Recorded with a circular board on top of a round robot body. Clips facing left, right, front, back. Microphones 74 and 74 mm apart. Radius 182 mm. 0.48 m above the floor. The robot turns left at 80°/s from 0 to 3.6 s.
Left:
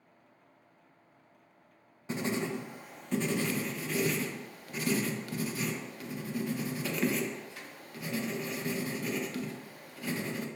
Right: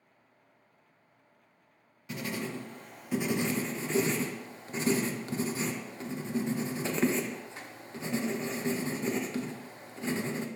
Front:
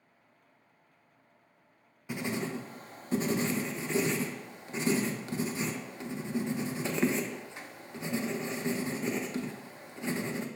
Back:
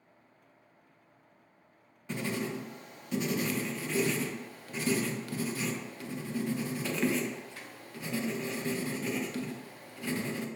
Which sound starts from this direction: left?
Writing, at 2.1 s.